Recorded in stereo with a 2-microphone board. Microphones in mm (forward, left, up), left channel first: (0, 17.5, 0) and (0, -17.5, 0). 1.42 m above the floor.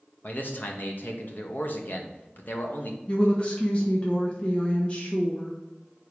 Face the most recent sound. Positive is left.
turn(degrees=30)  # may be behind; listen again after turning